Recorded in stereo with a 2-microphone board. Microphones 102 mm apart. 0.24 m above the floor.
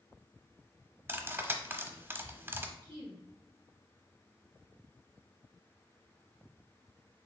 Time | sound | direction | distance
1.1 | cutlery clinking | 20° right (ahead or behind) | 0.6 m
2.8 | a woman speaking | 55° right (ahead or behind) | 2 m